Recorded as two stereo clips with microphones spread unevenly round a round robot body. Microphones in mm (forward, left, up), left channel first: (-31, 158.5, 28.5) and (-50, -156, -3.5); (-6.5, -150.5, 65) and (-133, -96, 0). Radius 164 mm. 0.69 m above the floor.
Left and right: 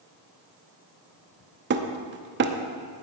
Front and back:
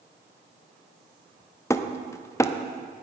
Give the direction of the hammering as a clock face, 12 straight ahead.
4 o'clock.